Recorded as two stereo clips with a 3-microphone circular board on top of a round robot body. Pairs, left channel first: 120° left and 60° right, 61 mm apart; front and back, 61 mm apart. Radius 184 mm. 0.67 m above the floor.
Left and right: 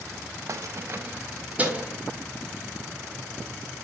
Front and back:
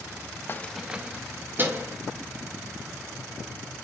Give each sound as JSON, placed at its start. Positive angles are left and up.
{"t": 0.5, "sound": "keys jangling", "azimuth_deg": -45, "distance_m": 0.6}